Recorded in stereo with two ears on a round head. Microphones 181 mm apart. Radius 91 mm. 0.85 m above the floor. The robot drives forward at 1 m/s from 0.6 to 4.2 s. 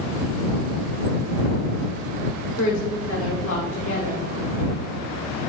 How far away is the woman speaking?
About 2 m.